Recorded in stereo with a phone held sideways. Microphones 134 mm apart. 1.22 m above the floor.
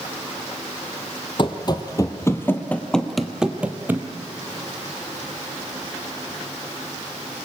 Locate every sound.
1.4 s running footsteps: 40° left (ahead or behind), 1.6 m; by 4.1 s 20° right (ahead or behind), 1.6 m